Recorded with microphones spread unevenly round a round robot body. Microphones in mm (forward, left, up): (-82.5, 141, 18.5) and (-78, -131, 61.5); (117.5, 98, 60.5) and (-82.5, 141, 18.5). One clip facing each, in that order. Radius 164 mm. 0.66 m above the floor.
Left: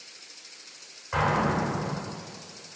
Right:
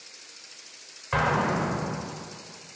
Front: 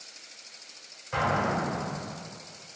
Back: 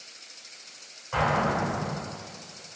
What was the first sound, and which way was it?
An explosion, 95° right.